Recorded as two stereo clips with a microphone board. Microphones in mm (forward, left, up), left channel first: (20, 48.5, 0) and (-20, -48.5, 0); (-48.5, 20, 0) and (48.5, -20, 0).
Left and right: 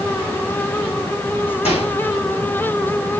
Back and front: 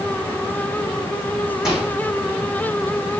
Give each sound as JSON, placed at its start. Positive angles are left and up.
{"t": 1.6, "sound": "a microwave", "azimuth_deg": 65, "distance_m": 5.5}